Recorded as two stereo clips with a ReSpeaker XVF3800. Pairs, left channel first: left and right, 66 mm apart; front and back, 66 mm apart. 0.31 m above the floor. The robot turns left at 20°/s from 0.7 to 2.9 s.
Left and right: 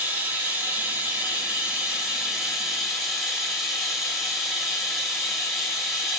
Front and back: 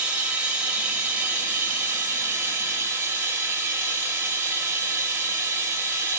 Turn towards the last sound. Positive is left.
turn(degrees=180)